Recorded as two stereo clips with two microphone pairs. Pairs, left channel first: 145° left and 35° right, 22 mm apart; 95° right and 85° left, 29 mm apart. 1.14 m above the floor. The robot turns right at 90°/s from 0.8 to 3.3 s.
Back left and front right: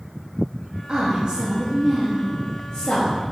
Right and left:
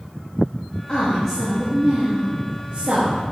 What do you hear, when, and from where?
0.9 s a woman speaking: 50° right, 2 m; by 3.2 s 160° left, 2 m